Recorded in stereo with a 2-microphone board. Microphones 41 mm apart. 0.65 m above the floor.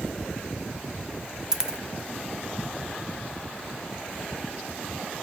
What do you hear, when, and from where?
1.5 s a dropped coin: 15° right (ahead or behind), 0.6 m